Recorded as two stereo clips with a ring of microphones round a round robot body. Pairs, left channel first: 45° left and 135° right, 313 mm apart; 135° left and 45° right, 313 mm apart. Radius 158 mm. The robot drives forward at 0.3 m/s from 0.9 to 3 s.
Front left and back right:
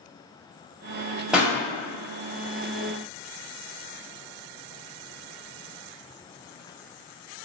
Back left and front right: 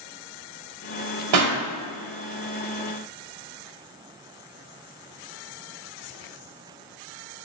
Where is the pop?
50° right, 1.4 m.